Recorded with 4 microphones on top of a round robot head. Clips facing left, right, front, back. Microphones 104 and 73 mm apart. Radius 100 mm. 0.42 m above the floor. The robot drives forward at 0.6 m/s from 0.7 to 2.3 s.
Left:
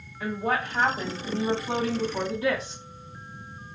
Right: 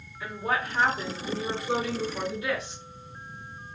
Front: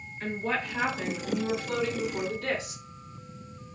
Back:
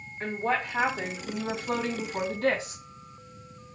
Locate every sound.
0.2 s a woman speaking: 135° left, 2.5 m; by 2.8 s 145° left, 3 m